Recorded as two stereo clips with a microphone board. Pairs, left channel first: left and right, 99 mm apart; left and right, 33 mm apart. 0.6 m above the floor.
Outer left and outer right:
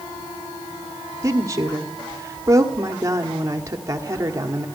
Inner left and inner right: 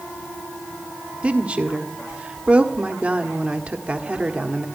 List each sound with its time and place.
1.2 s a woman speaking: 35° right (ahead or behind), 1.4 m